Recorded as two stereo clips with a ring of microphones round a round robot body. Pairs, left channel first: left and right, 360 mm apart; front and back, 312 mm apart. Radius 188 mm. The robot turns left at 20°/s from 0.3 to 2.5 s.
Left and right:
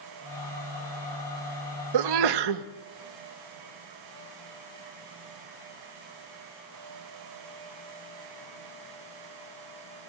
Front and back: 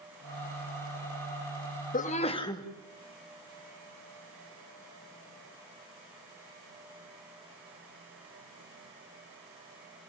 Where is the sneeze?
65° right, 1.1 m; by 2.6 s 80° right, 1.1 m.